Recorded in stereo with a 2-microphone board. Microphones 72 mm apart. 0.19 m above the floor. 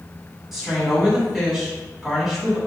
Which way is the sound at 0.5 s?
5° right (ahead or behind).